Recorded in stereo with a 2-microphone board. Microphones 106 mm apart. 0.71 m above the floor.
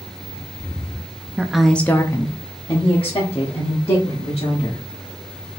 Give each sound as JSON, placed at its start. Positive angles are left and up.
{"t": 1.4, "sound": "a woman speaking", "side_deg": -10, "distance_m": 0.5}